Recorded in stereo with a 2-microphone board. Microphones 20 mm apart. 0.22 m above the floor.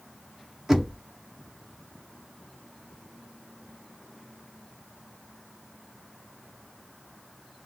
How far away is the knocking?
About 0.9 m.